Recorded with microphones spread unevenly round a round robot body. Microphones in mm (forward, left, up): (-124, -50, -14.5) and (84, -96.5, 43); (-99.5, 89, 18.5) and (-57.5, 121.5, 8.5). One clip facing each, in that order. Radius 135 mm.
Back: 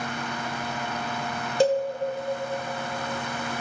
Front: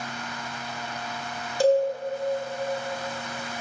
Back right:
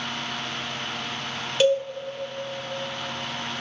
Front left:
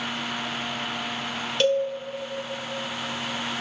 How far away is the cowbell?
About 0.9 m.